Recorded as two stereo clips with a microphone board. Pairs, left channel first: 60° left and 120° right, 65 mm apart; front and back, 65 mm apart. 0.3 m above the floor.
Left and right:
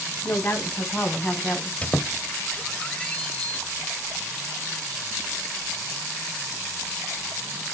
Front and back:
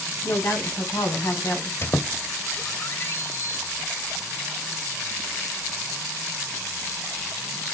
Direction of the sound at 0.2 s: 15° left.